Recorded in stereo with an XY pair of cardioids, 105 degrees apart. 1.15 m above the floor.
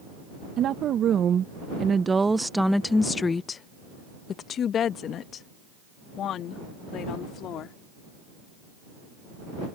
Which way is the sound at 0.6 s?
70° right.